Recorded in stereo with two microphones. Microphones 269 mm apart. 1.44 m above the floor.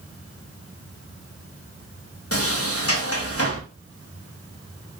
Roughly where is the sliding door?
Left.